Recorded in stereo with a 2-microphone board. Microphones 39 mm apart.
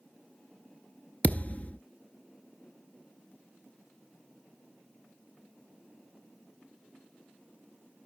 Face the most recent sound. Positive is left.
turn(degrees=35)  # may be behind; listen again after turning